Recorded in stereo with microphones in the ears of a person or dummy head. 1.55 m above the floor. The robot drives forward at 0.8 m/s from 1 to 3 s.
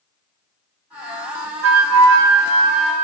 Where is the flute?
75° right (ahead or behind), 0.7 m; by 3.0 s 35° right (ahead or behind), 1.2 m.